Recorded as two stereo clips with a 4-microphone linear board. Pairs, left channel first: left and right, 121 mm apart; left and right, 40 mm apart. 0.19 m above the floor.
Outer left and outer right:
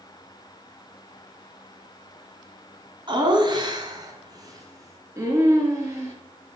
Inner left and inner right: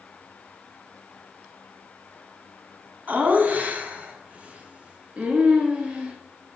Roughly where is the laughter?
Right.